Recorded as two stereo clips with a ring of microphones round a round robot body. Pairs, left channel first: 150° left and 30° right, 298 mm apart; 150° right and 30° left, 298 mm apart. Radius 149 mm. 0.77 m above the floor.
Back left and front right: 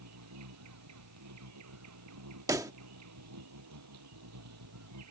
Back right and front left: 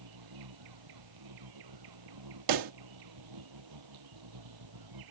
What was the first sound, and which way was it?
An insect, 10° left.